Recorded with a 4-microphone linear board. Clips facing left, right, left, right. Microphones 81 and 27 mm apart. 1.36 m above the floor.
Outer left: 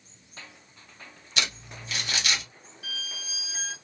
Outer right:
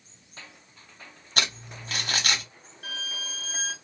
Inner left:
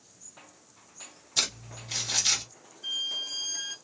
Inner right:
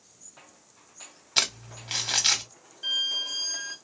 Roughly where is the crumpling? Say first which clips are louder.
Outer right 2 dB, inner right 3 dB; right.